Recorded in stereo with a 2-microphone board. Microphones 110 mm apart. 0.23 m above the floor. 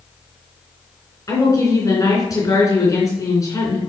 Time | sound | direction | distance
1.3 | a woman speaking | 30° left (ahead or behind) | 3 m